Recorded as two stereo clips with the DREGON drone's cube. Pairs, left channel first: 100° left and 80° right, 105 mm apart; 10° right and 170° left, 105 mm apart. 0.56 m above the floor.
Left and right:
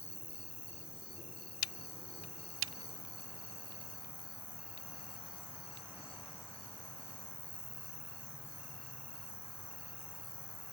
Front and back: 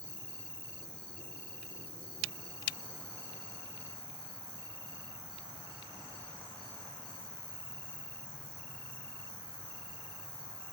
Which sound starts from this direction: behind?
An insect, at 0.0 s.